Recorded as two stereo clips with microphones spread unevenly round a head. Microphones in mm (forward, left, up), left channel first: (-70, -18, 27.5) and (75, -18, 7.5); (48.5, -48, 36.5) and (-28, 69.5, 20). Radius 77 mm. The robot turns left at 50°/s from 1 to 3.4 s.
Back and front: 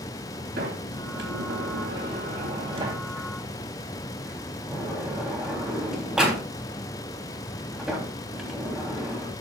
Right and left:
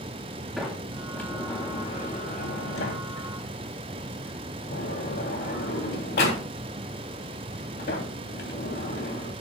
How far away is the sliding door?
About 3.5 m.